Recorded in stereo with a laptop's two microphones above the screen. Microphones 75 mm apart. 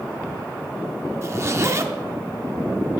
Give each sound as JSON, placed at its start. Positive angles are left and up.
{"t": 1.2, "sound": "a zipper", "side_deg": -35, "distance_m": 0.7}